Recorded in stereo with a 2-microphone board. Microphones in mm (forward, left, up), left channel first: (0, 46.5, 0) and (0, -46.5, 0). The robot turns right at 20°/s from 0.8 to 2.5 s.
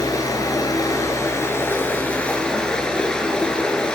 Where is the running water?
135° left, 2 m; by 3.9 s 170° left, 2 m.